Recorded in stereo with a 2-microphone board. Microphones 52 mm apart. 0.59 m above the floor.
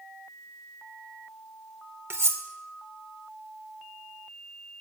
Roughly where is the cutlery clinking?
Right.